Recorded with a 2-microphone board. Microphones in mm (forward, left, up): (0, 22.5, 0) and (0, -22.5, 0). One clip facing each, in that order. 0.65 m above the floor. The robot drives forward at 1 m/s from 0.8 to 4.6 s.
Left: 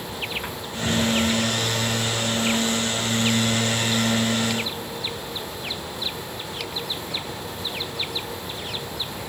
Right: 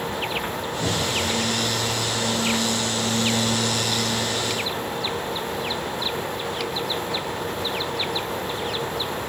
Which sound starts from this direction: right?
A cupboard door, at 0.8 s.